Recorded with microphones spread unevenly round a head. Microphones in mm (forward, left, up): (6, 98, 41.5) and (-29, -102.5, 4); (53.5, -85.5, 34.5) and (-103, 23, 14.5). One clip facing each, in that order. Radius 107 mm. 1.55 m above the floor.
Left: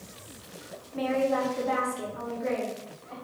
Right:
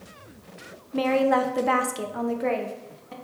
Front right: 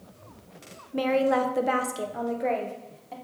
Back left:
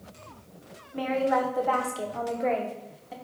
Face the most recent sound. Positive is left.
turn(degrees=-135)